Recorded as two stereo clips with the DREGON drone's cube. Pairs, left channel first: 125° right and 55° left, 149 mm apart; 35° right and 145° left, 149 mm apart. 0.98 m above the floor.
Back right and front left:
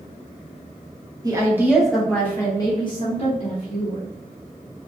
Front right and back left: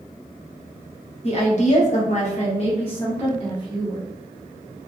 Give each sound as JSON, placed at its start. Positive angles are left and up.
{"t": 1.2, "sound": "a woman speaking", "azimuth_deg": -5, "distance_m": 0.8}